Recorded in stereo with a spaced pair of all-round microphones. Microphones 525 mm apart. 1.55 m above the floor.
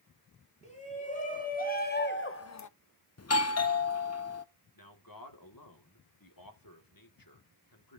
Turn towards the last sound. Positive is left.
turn(degrees=40)  # may be behind; listen again after turning